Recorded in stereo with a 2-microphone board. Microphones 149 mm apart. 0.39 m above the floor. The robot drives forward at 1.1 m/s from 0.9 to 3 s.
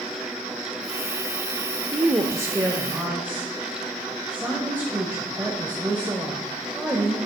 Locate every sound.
1.9 s a woman speaking: 20° right (ahead or behind), 0.8 m; by 7.2 s 15° right (ahead or behind), 1.3 m